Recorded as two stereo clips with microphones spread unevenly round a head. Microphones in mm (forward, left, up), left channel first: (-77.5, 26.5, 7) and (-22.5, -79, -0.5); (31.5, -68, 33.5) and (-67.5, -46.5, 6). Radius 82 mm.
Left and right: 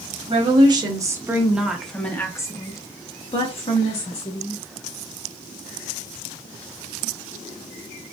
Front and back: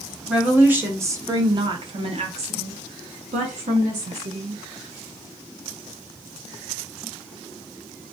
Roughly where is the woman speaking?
Right.